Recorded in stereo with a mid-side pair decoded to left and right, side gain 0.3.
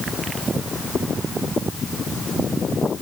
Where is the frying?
No frying in this recording.